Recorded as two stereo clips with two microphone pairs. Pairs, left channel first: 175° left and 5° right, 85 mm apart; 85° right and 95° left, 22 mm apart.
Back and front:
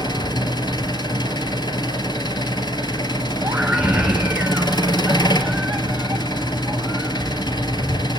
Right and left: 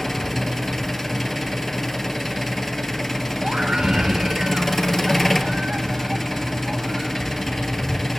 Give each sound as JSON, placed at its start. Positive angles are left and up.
{"t": 0.0, "sound": "an engine running", "azimuth_deg": -165, "distance_m": 1.7}
{"t": 3.4, "sound": "a scream", "azimuth_deg": 70, "distance_m": 2.0}